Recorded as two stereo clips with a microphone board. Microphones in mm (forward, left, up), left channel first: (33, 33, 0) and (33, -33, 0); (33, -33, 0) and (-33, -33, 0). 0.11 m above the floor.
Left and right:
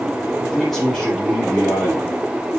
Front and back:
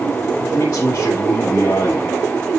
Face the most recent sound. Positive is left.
turn(degrees=-5)